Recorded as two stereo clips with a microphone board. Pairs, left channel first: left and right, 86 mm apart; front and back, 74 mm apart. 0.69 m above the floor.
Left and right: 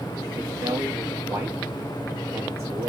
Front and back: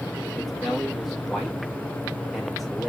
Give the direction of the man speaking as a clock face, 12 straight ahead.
3 o'clock.